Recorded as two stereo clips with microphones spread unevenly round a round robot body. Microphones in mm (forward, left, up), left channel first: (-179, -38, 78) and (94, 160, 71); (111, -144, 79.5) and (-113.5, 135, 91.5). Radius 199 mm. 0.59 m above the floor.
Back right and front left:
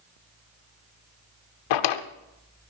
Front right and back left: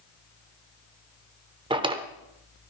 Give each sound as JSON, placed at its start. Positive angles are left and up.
{"t": 1.7, "sound": "a drawer", "azimuth_deg": -155, "distance_m": 0.8}